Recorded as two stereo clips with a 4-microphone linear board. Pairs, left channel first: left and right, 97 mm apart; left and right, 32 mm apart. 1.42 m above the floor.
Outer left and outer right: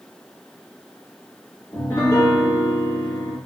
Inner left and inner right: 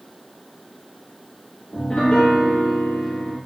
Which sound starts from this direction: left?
A piano, at 1.7 s.